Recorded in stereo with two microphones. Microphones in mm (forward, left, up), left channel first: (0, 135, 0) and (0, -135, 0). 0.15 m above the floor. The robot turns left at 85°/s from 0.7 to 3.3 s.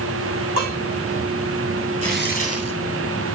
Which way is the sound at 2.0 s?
25° right.